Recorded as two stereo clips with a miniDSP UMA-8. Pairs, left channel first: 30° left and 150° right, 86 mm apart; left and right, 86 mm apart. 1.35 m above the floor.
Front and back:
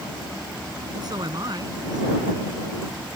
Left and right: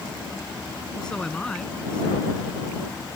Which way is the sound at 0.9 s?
170° left.